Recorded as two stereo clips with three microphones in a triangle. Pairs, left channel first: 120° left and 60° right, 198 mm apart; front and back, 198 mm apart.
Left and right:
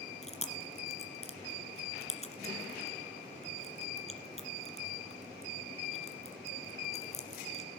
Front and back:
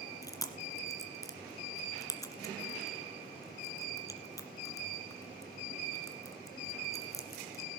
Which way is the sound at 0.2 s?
70° left.